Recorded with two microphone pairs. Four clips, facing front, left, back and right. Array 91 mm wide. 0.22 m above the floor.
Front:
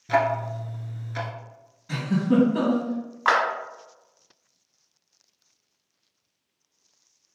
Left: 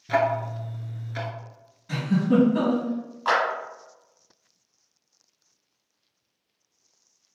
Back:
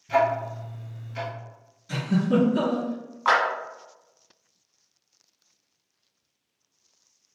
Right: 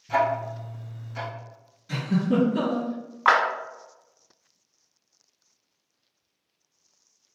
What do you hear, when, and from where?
0.1 s ticking: 45° left, 0.8 m
1.9 s a giggle: 45° left, 1.7 m
3.2 s a clap: 70° right, 1.4 m